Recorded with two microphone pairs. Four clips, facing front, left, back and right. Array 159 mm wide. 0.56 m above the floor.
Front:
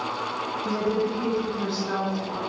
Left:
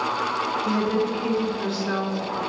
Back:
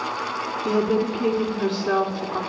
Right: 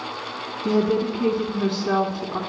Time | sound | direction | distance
0.7 | a woman speaking | 115° right | 4 m